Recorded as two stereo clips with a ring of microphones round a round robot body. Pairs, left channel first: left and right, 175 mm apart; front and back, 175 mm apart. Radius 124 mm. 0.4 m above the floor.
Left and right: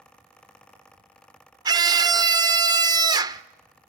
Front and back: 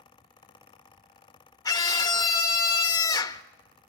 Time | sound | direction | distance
1.6 | a scream | 50° right | 0.8 m